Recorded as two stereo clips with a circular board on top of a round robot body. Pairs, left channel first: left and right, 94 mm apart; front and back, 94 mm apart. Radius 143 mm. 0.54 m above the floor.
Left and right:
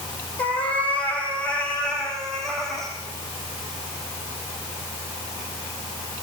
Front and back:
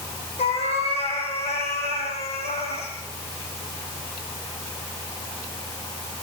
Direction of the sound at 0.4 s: 15° left.